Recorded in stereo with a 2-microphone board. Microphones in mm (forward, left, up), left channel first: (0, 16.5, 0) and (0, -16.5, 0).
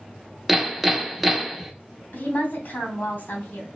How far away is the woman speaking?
About 3 m.